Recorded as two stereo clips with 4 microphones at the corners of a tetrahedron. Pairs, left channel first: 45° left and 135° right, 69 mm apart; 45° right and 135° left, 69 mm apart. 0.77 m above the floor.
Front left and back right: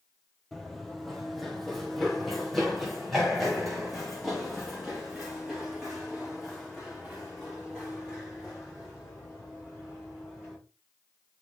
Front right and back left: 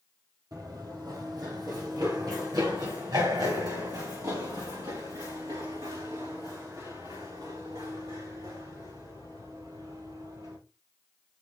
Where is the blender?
I don't hear a blender.